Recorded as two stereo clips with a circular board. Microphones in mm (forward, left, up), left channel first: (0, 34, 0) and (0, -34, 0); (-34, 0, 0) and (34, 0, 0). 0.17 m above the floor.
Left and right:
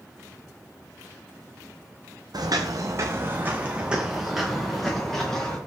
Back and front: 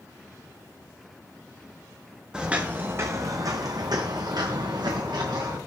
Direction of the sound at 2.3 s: 75° right.